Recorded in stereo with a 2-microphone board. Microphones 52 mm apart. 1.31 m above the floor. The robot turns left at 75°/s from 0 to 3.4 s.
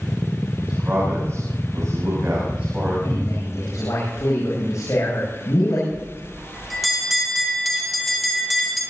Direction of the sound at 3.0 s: 50° left (ahead or behind).